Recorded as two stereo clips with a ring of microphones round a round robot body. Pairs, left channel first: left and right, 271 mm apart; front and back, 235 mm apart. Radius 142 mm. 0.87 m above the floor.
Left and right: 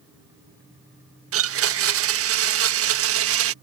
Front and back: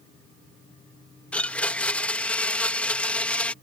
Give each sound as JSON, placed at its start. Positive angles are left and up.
{"t": 1.3, "sound": "a blender", "azimuth_deg": -85}